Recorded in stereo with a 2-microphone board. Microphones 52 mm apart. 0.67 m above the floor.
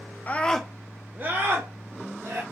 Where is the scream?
30° left (ahead or behind), 0.5 m; by 2.4 s 45° right (ahead or behind), 1.9 m.